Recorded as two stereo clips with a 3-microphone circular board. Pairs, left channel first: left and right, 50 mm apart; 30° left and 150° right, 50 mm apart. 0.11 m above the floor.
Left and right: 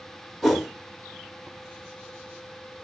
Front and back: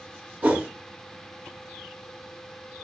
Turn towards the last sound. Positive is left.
turn(degrees=175)